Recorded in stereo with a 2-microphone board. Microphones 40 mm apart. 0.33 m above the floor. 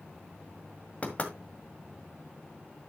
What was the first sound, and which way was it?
Knocking, 35° left (ahead or behind).